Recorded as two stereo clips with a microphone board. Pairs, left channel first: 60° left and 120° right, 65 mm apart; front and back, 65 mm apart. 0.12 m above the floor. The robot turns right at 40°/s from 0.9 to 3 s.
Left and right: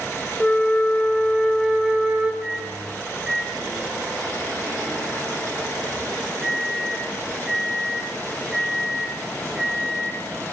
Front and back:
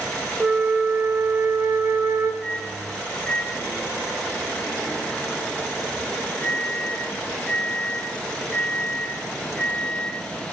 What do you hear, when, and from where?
0.4 s a flute: 130° left, 0.8 m; by 2.3 s 175° right, 0.8 m
2.4 s a microwave: 80° right, 1.2 m; by 10.3 s 55° right, 1.2 m